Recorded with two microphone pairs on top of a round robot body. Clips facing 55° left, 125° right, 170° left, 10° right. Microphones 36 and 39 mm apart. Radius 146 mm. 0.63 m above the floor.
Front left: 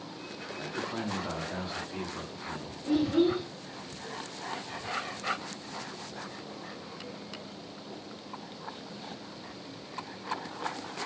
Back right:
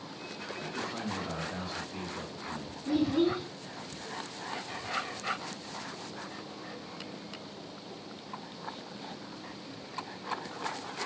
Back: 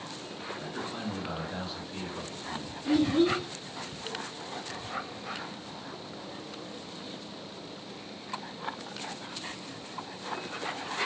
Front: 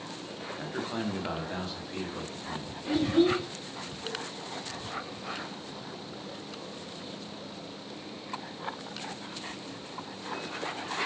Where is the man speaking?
5° right, 0.9 m; by 2.7 s 20° left, 1.9 m.